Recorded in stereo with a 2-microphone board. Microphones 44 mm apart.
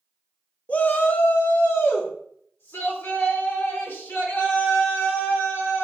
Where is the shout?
30° left (ahead or behind), 0.6 m; by 5.8 s 75° left (ahead or behind), 4 m.